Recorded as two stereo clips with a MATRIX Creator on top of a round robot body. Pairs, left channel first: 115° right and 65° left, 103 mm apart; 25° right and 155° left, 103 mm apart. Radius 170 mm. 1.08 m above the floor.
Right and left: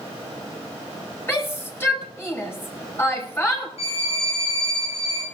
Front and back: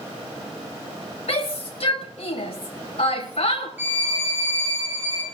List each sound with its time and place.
1.3 s a shout: 45° right, 5 m
3.8 s a violin: 130° right, 9.5 m